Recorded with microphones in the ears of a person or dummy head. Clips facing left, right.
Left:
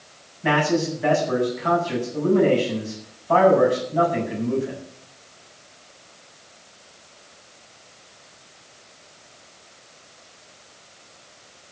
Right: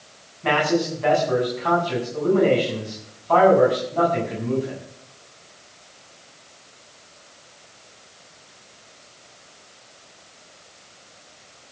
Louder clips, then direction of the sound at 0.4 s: Even; 15° left (ahead or behind).